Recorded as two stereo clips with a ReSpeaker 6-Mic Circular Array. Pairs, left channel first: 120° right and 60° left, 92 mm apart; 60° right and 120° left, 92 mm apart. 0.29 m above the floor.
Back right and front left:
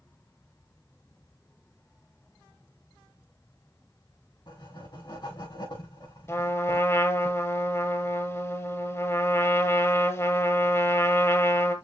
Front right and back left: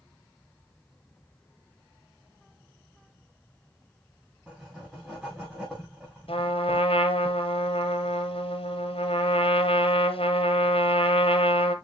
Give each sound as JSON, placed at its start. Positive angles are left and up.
{"t": 4.5, "sound": "writing", "azimuth_deg": -155, "distance_m": 5.5}
{"t": 6.3, "sound": "a trumpet", "azimuth_deg": -60, "distance_m": 1.4}